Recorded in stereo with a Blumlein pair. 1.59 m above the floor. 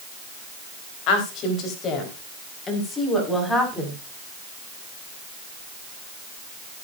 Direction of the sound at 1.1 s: 40° left.